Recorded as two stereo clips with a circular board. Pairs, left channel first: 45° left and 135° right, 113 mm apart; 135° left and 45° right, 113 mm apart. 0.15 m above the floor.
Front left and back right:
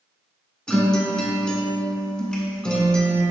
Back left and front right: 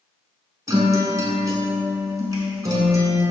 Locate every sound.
0.7 s a guitar: 30° right, 0.8 m